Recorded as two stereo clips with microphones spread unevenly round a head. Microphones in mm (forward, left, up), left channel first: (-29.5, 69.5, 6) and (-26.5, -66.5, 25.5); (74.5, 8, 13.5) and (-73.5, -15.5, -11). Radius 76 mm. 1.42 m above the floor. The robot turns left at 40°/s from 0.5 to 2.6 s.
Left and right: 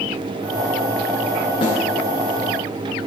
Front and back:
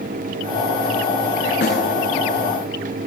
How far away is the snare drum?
About 10 m.